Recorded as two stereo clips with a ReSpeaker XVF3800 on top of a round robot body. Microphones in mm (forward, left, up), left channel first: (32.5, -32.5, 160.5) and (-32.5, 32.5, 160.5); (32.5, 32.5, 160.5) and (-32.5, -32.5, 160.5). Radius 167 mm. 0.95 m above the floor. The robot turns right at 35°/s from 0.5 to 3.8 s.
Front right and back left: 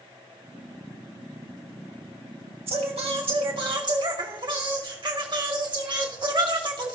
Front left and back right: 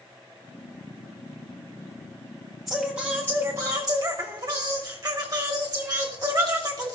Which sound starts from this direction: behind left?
Singing, at 2.7 s.